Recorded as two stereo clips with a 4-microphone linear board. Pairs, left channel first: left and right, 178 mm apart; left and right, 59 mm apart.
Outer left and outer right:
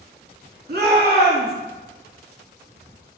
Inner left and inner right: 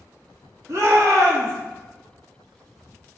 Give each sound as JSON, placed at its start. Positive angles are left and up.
{"t": 0.7, "sound": "a shout", "side_deg": -65, "distance_m": 3.0}